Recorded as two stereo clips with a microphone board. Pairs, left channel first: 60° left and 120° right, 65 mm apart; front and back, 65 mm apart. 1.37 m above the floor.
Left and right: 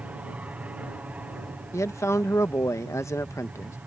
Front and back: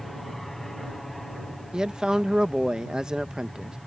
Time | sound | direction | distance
0.0 | an aircraft | 85° right | ?
1.7 | a man speaking | 105° left | ?